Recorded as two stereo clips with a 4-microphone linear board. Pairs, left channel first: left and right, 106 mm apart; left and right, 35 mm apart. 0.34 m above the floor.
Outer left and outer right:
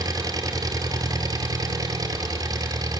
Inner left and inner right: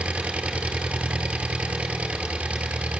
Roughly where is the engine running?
Right.